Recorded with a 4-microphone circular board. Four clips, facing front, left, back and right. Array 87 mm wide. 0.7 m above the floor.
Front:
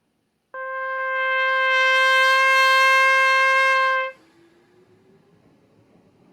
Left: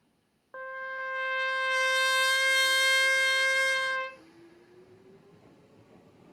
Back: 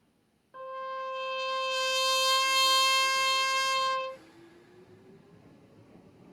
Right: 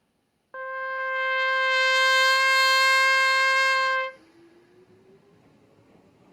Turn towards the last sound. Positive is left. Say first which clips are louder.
# right 6 dB, front 10 dB
turn(degrees=-15)